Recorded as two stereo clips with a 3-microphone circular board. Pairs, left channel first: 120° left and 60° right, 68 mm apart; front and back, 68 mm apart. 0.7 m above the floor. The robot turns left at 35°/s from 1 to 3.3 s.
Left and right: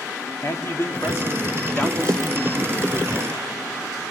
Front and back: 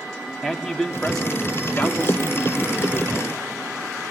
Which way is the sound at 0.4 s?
85° left.